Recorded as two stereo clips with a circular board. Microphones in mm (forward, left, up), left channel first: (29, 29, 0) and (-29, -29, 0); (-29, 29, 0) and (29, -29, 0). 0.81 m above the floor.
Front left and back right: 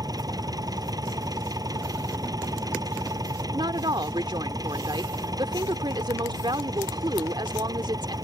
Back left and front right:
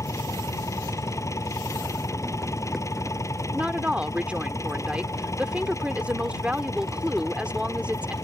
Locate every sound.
0.0 s an engine running: 175° right
3.5 s a woman speaking: 120° right